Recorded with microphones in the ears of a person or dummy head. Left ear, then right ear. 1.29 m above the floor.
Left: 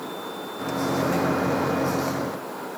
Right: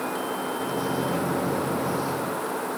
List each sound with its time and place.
0.6 s a microwave: 50° left (ahead or behind), 0.6 m